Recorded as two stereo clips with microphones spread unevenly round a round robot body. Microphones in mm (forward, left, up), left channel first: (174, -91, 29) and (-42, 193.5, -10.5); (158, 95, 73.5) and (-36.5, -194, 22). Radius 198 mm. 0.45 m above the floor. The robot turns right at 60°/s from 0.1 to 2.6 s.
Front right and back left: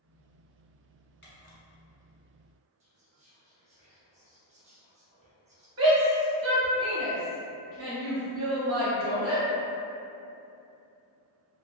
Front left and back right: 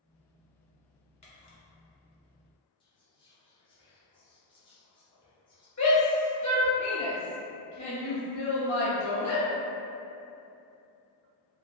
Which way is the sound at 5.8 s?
110° left.